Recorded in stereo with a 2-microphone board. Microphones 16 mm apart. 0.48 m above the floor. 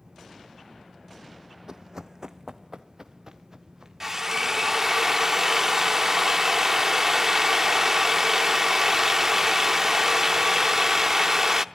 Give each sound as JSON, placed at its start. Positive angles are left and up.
{"t": 1.7, "sound": "running footsteps", "side_deg": -40, "distance_m": 0.7}
{"t": 4.0, "sound": "a drill", "side_deg": -25, "distance_m": 0.7}